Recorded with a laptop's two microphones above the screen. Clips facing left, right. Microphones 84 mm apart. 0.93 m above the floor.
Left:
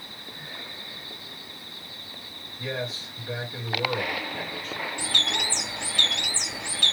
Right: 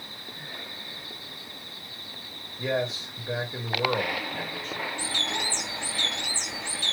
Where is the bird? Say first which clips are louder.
Left 1 dB; 75° left (ahead or behind), 0.7 m.